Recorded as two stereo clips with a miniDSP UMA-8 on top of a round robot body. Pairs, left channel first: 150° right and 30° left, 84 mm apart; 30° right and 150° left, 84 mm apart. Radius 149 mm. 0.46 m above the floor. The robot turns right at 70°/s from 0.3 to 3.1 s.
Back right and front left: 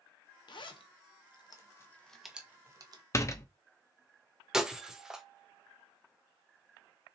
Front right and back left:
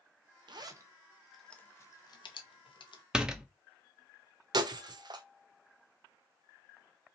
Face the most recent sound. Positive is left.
turn(degrees=115)